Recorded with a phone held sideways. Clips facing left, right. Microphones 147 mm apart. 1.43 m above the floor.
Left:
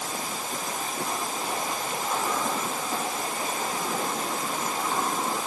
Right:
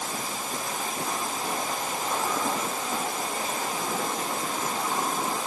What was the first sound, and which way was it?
Only background noise.